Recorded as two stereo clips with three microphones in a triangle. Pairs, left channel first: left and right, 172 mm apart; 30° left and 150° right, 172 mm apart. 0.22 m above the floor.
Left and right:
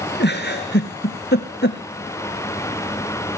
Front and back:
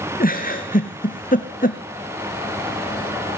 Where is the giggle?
70° left, 2 m.